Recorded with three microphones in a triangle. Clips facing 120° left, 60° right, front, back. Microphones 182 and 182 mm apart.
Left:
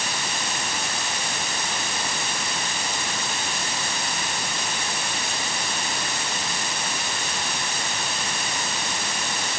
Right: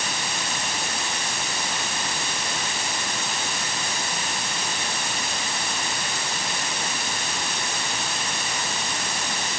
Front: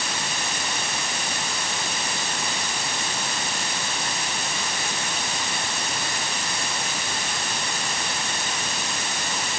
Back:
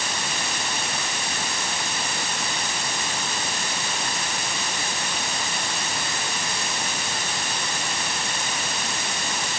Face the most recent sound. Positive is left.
No sound to turn to.